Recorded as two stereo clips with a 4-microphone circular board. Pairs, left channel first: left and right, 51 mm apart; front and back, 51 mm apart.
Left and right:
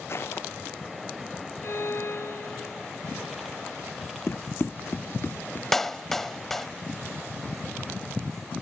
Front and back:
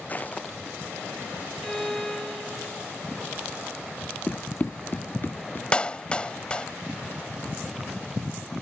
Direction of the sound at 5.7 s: 15° left.